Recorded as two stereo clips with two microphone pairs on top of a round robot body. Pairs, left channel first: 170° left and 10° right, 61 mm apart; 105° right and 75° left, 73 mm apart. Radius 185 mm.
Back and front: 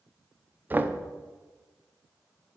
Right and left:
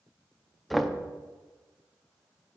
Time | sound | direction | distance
0.7 | knocking | 15° right | 0.7 m